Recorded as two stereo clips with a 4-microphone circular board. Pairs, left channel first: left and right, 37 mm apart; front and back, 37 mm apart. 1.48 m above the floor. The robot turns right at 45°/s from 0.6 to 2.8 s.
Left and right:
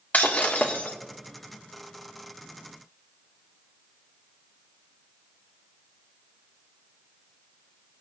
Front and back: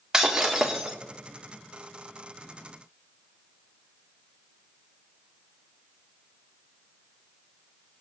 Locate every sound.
0.1 s breaking glass: 105° left, 1.6 m; by 0.9 s 120° left, 1.6 m